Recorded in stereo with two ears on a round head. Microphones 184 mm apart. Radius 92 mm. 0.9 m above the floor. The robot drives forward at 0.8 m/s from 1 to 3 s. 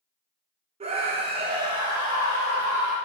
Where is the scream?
30° right (ahead or behind), 0.6 m; by 2.9 s 10° right (ahead or behind), 1.6 m.